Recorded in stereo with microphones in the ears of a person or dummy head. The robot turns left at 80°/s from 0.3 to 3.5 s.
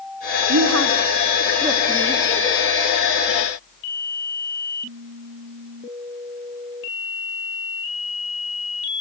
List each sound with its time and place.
0.5 s a woman speaking: 75° right (ahead or behind), 3 m; by 2.6 s 60° left (ahead or behind), 3 m